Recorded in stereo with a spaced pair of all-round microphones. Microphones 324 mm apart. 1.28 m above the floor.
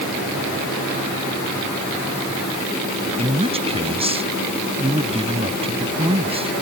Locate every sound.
3.2 s a man speaking: 15° right (ahead or behind)